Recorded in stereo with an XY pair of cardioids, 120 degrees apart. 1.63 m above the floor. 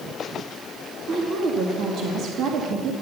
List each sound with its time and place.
1.1 s a woman speaking: 55° right, 2.5 m